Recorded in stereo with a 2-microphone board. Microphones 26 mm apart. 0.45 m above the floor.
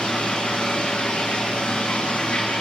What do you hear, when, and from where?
0.0 s running water: 45° left (ahead or behind), 5 m